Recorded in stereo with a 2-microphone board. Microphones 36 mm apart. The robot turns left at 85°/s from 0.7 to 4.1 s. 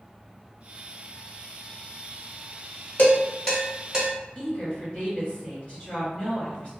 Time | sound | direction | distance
3.0 | dishes clattering | 50° left (ahead or behind) | 1.2 m
4.3 | a woman speaking | 35° left (ahead or behind) | 1.5 m